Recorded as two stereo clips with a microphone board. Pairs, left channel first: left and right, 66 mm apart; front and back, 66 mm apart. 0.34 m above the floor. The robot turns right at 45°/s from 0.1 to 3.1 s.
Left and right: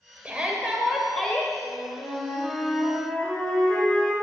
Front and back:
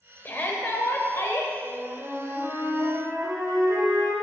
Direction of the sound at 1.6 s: 95° left.